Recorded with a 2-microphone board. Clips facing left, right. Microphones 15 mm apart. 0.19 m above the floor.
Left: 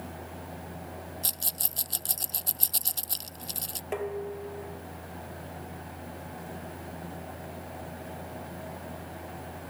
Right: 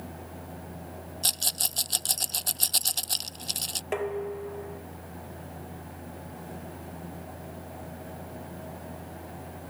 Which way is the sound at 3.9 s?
20° right (ahead or behind).